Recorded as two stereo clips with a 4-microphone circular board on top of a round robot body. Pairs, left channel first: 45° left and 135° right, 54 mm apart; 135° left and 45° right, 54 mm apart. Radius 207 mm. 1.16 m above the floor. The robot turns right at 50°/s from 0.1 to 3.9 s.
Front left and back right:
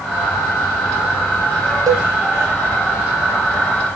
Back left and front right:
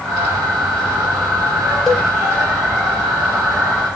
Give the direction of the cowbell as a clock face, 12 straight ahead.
5 o'clock.